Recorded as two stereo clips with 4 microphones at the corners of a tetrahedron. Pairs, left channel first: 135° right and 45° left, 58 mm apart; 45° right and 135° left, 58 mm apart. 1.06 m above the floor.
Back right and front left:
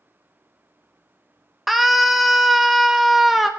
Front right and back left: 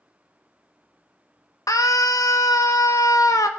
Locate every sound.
1.7 s a scream: 45° right, 1.3 m